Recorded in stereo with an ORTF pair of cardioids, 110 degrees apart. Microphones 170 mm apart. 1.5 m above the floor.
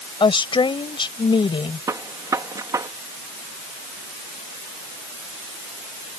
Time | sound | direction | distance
0.2 | a woman speaking | 30° left | ?
1.9 | a gunshot | 20° right | ?